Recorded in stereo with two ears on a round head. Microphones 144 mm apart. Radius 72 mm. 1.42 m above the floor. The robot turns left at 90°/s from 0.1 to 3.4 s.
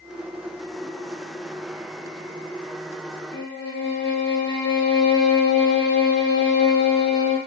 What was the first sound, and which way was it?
A violin, 80° left.